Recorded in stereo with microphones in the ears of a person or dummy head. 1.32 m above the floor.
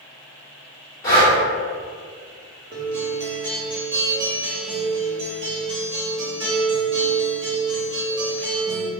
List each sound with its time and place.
1.0 s breathing: 20° left (ahead or behind), 1.5 m
2.7 s a guitar: 25° right (ahead or behind), 0.9 m